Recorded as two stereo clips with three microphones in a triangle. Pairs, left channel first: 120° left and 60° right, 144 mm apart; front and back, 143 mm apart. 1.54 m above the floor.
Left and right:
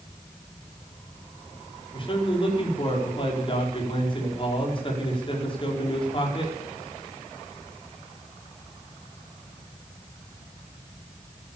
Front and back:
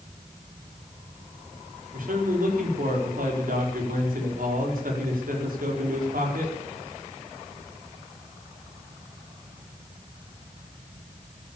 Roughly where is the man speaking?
Behind.